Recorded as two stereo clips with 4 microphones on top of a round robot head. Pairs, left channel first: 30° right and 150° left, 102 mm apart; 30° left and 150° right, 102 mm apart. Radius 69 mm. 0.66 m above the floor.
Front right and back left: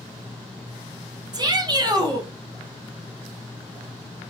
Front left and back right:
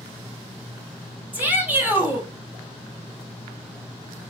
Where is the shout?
150° left, 1.5 m.